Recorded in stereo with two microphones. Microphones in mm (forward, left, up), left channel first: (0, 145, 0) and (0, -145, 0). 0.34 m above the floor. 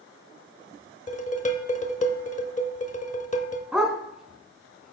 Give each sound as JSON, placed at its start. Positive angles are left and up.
{"t": 1.1, "sound": "dishes clattering", "side_deg": 25, "distance_m": 0.7}
{"t": 3.7, "sound": "a dog barking", "side_deg": 0, "distance_m": 0.9}